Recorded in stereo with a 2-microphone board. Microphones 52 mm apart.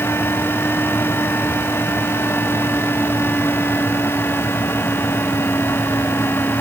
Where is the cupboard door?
I don't hear a cupboard door.